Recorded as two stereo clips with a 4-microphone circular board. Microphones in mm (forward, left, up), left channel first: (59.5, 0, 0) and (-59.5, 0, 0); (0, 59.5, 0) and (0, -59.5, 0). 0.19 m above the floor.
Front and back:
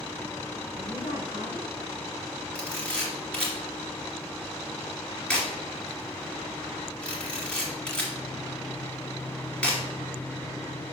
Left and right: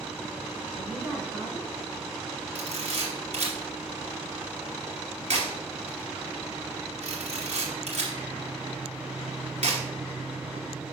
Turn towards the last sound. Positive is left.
turn(degrees=-80)